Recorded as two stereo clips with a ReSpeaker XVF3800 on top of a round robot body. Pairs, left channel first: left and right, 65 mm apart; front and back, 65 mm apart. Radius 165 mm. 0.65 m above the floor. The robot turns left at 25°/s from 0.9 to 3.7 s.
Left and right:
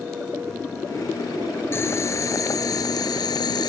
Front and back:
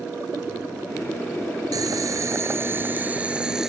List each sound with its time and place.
1.7 s boiling: 145° left; by 3.7 s 95° left